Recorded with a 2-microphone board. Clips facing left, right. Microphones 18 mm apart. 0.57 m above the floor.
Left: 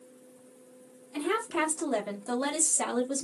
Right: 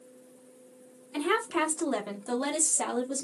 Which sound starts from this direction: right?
A woman speaking, at 1.1 s.